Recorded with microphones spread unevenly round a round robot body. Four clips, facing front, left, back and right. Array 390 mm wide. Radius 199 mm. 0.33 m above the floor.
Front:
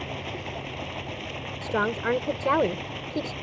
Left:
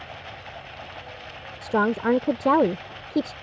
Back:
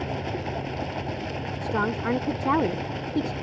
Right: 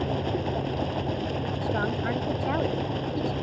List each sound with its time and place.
0.0 s running water: 110° right
1.6 s a woman speaking: 85° left